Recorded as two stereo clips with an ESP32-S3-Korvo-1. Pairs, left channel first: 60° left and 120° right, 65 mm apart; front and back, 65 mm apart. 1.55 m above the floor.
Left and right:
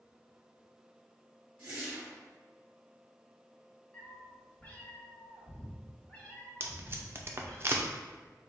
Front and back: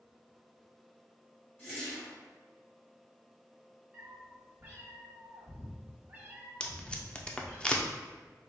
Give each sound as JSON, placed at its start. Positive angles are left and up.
{"t": 1.6, "sound": "a whoosh", "azimuth_deg": -50, "distance_m": 1.9}
{"t": 3.9, "sound": "a cat meowing", "azimuth_deg": 120, "distance_m": 1.1}
{"t": 6.6, "sound": "tape being pulled", "azimuth_deg": -75, "distance_m": 0.5}